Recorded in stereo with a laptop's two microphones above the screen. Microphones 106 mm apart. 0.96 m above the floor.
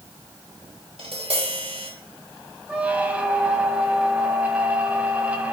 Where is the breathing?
No breathing in this recording.